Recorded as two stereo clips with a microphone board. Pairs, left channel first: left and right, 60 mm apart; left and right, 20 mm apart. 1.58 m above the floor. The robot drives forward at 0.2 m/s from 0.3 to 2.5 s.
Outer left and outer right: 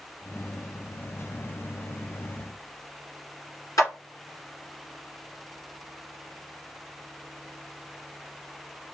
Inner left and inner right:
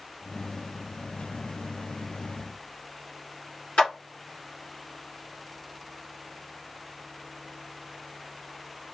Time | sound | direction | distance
3.8 | a clap | 75° left (ahead or behind) | 2.5 m